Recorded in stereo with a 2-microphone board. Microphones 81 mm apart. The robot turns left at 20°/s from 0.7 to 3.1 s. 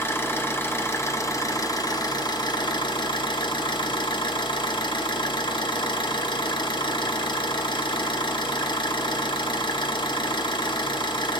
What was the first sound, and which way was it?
An engine running, 150° left.